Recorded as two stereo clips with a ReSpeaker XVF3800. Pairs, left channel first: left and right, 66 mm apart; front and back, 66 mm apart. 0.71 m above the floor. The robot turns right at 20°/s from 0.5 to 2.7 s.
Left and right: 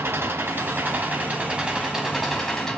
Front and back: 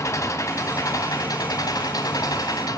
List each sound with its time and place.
0.0 s an engine running: 40° right, 3 m; by 2.8 s 5° left, 3 m